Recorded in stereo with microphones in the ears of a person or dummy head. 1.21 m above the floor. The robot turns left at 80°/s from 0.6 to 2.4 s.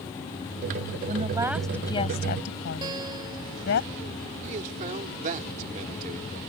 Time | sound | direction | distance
1.1 | a woman speaking | 135° right | ?
2.8 | a guitar | 20° right (ahead or behind) | ?
4.4 | a man speaking | 40° right (ahead or behind) | ?